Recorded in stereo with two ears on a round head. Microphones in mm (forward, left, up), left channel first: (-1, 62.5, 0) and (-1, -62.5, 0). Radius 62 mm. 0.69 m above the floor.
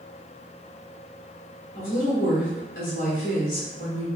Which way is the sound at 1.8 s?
60° left (ahead or behind).